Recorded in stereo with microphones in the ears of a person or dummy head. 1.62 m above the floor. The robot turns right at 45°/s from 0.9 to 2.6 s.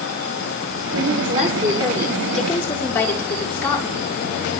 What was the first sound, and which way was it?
A woman speaking, 65° right.